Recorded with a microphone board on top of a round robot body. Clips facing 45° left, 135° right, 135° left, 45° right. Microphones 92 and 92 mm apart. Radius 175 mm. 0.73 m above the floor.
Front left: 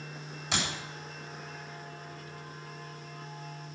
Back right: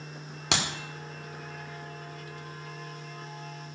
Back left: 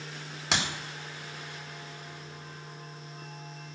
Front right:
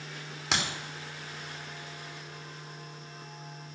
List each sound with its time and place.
0.5 s a clap: 135° right, 2 m